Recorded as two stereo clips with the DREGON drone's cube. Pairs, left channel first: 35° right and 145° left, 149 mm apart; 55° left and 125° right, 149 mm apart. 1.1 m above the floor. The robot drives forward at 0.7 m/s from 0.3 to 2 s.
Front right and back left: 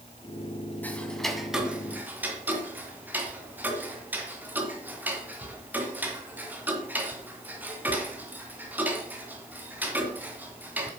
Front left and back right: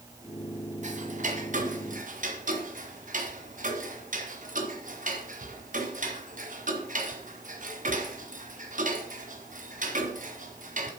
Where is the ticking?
110° right, 1.5 m; by 10.9 s 135° right, 1.9 m.